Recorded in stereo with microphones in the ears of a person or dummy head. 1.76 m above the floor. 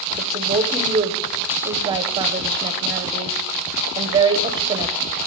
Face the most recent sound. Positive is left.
turn(degrees=-25)  # may be behind; listen again after turning